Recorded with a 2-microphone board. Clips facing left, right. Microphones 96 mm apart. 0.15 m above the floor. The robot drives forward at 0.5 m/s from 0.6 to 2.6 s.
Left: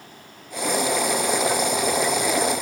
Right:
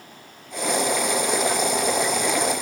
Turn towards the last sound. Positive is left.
No sound to turn to.